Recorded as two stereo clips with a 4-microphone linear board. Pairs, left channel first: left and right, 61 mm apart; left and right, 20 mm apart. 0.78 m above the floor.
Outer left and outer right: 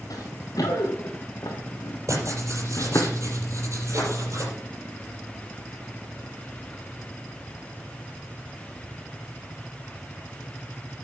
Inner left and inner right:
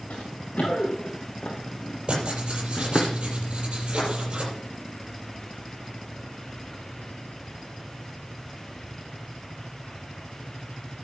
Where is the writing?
55° right (ahead or behind), 6 m.